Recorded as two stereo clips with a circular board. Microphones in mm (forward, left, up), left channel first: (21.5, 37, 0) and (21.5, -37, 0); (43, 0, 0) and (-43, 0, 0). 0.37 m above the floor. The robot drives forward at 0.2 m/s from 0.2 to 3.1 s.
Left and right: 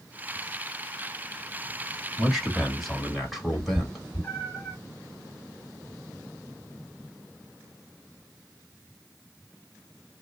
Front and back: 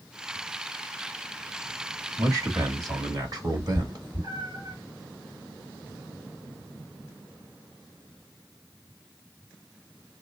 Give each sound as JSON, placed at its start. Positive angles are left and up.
{"t": 2.2, "sound": "a man speaking", "azimuth_deg": 180, "distance_m": 1.1}
{"t": 3.5, "sound": "a cat meowing", "azimuth_deg": 155, "distance_m": 1.2}